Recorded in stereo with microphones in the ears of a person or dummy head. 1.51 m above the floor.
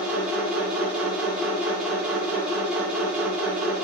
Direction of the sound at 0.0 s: 5° right (ahead or behind).